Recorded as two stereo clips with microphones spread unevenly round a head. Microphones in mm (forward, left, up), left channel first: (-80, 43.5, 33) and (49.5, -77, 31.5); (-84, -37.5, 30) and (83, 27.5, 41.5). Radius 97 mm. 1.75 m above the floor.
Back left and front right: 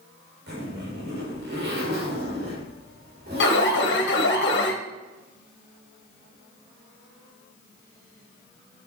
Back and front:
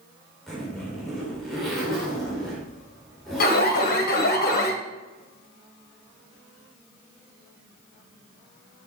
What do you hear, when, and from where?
0.5 s a zipper: 70° right, 5 m
3.4 s an alarm: 165° left, 2.0 m